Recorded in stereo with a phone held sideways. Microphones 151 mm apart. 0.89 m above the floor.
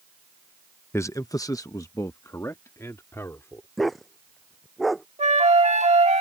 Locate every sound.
0.9 s a man speaking: 15° left (ahead or behind)
3.8 s a dog barking: centre (ahead or behind)
5.2 s a flute: 50° right (ahead or behind)